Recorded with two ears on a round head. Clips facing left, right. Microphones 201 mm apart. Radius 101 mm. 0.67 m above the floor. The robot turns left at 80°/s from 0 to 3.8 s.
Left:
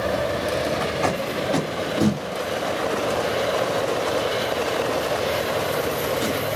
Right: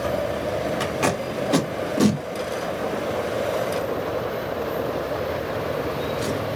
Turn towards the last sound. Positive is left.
turn(degrees=65)  # may be behind; listen again after turning